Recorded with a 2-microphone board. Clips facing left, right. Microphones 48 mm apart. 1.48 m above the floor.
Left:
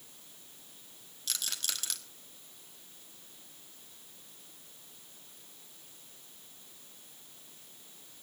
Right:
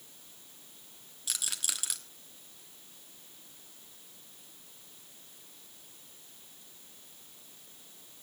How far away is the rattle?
About 1.4 m.